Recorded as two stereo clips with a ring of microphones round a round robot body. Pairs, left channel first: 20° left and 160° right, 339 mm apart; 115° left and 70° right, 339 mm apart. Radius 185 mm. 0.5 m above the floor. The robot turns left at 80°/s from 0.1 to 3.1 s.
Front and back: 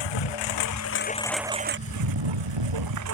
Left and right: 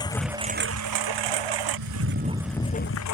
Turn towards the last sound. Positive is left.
turn(degrees=155)